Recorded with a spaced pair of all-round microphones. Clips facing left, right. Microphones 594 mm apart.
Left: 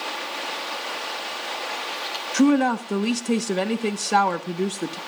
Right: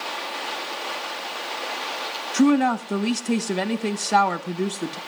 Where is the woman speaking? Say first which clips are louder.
Even; 5° right (ahead or behind), 0.9 m.